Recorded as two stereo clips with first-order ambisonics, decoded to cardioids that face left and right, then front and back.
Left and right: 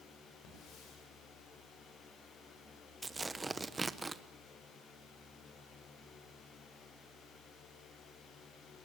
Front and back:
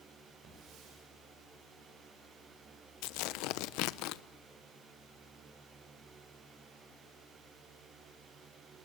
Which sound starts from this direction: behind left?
A hiss, at 0.4 s.